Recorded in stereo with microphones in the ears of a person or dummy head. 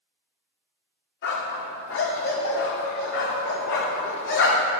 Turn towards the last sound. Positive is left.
turn(degrees=55)  # may be behind; listen again after turning